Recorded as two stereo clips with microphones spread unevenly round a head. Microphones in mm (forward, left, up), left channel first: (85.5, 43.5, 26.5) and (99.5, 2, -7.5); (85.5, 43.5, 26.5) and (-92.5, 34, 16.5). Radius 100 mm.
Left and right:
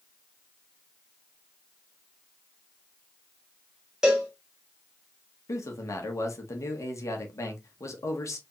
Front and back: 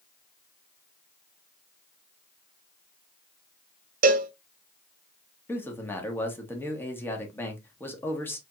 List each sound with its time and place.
4.0 s a cowbell: 160° left, 0.6 m
5.5 s a man speaking: 80° left, 1.3 m